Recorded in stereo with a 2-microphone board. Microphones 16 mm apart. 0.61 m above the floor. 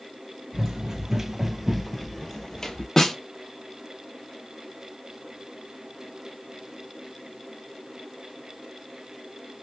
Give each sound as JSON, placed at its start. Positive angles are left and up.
{"t": 0.5, "sound": "running footsteps", "side_deg": -45, "distance_m": 1.0}
{"t": 3.0, "sound": "a snare drum", "side_deg": 30, "distance_m": 1.1}